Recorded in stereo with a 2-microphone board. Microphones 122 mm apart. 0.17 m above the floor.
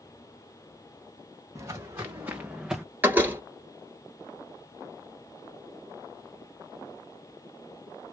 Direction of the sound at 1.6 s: 25° right (ahead or behind).